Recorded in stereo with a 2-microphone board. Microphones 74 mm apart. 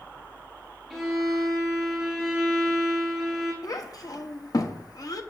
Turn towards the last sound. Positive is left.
turn(degrees=55)  # may be behind; listen again after turning